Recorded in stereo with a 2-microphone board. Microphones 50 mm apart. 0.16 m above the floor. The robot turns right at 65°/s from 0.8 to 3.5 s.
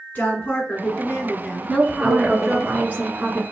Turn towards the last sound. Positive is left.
turn(degrees=-50)